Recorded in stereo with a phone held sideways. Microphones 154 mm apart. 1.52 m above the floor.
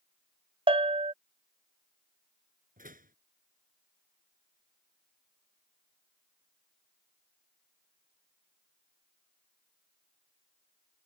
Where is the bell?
35° right (ahead or behind).